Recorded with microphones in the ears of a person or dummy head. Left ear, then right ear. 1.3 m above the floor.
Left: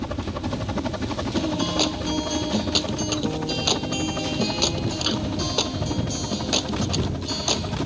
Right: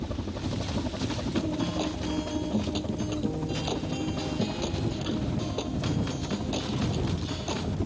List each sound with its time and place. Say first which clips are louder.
0.0 s a helicopter: left 5 dB; 55° left (ahead or behind); by 7.9 s 50° left (ahead or behind)
1.4 s a guitar: left 8 dB; 55° left (ahead or behind)